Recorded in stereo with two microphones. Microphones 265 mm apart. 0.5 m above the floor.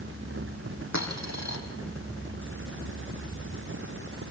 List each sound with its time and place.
0.9 s a dropped coin: 85° left, 4 m